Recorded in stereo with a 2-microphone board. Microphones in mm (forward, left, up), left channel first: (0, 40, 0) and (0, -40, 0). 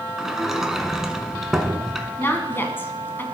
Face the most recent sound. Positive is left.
turn(degrees=30)  # may be behind; listen again after turning